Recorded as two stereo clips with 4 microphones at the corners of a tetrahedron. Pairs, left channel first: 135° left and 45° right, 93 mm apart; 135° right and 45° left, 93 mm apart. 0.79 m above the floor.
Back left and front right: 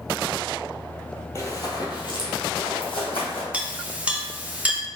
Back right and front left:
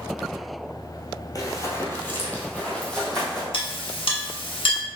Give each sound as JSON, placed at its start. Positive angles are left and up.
{"t": 1.4, "sound": "running footsteps", "azimuth_deg": -175, "distance_m": 1.3}
{"t": 3.5, "sound": "a clink", "azimuth_deg": -120, "distance_m": 0.8}